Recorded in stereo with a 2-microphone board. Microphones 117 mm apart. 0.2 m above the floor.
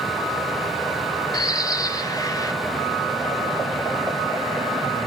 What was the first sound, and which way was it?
A bird, 35° left (ahead or behind).